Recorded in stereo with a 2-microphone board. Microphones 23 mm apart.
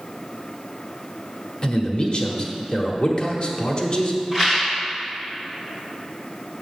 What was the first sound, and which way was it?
A man speaking, 40° left (ahead or behind).